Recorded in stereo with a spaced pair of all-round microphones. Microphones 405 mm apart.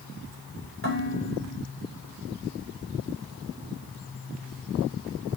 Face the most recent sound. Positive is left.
turn(degrees=30)  # may be behind; listen again after turning